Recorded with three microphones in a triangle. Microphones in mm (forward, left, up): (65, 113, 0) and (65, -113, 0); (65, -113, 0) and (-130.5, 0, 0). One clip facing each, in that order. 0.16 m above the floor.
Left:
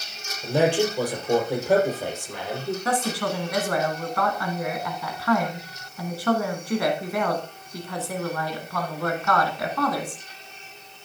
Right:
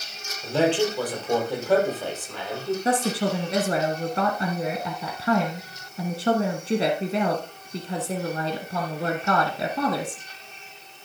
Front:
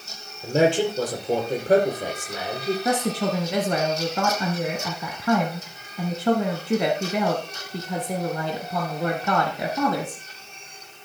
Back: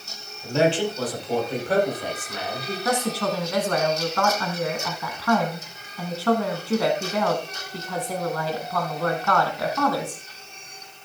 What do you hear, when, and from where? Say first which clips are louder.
0.4 s a man speaking: left 1 dB, front 2 dB; 15° left, 4 m
2.9 s a woman speaking: right 3 dB, back 2 dB; 75° right, 1.3 m